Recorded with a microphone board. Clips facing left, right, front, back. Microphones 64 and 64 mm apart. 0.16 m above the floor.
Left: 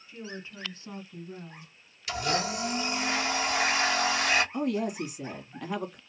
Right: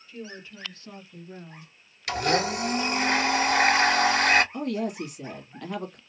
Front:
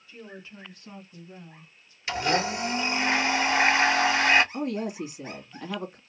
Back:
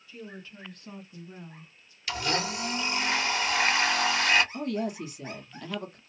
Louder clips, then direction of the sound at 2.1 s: Right 5 dB, front 4 dB; 60° right.